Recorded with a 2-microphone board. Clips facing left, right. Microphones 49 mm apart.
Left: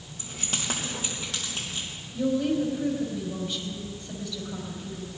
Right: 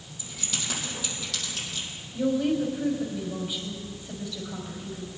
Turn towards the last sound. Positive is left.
turn(degrees=-10)  # may be behind; listen again after turning